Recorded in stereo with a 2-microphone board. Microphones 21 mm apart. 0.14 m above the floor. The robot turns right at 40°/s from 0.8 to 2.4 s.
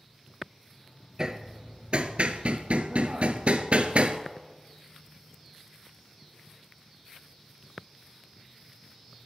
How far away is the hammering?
About 0.7 m.